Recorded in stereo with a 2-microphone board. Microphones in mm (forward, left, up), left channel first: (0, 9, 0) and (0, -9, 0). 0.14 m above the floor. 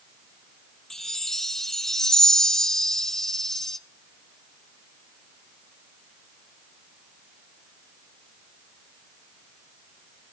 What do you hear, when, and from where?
0.9 s a chime: 20° left (ahead or behind), 0.5 m